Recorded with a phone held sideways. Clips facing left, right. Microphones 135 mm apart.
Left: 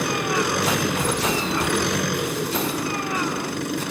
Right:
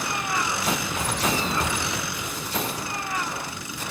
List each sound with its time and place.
0.0 s an engine running: 60° left (ahead or behind)